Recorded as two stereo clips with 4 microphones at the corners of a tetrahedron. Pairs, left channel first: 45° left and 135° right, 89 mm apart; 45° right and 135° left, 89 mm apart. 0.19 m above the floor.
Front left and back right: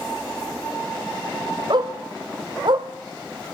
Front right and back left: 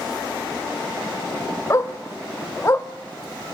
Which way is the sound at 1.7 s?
100° right.